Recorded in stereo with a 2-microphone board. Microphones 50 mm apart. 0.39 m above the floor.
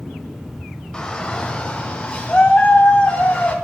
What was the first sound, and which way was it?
A shout, 15° left (ahead or behind).